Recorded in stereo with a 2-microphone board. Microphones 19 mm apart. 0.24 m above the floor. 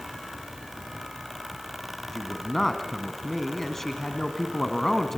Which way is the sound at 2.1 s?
15° left (ahead or behind).